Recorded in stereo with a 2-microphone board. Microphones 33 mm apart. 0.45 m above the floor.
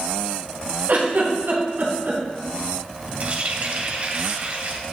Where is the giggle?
75° right (ahead or behind), 3 m.